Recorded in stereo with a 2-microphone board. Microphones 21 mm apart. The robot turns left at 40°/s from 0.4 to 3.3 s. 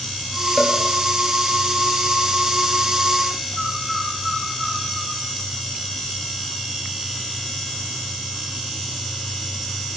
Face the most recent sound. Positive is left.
turn(degrees=-5)  # may be behind; listen again after turning